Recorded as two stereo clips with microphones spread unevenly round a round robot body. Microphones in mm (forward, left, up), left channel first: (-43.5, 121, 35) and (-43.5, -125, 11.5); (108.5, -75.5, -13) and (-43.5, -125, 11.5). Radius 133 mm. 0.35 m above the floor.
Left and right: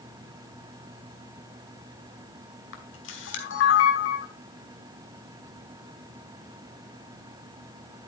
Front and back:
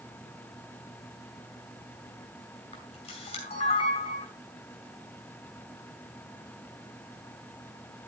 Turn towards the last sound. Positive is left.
turn(degrees=60)